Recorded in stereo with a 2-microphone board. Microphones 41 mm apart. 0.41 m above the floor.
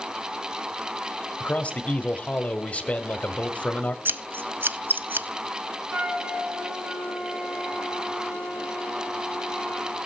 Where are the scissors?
55° right (ahead or behind), 0.5 m.